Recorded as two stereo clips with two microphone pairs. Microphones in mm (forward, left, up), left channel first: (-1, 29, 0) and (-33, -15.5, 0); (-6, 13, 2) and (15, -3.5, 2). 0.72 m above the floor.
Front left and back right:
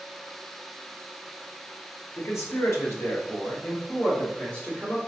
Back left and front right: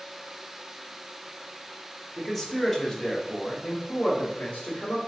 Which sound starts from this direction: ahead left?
A man speaking, at 2.2 s.